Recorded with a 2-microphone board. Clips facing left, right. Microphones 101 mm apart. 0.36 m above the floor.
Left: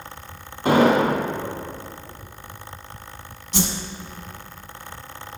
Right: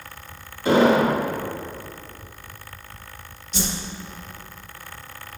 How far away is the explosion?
About 2 m.